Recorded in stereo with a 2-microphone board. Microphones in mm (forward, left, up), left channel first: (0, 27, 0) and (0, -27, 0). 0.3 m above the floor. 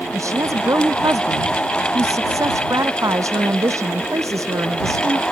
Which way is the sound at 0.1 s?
80° right.